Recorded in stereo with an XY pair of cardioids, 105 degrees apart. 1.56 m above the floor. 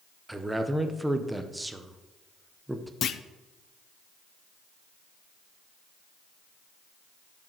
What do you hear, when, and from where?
0.3 s a man speaking: 10° right, 1.1 m
3.0 s a clunk: 60° left, 0.6 m